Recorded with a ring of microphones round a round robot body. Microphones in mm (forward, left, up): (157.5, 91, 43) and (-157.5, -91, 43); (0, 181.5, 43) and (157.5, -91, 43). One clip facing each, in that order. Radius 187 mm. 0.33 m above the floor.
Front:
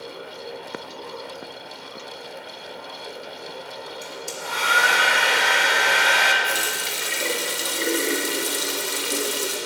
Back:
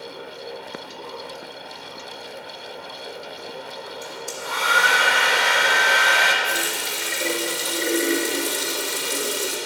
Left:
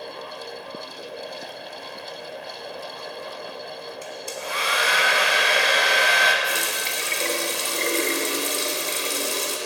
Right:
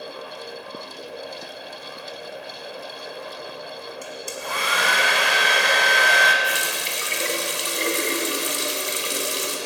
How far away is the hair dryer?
About 1.4 m.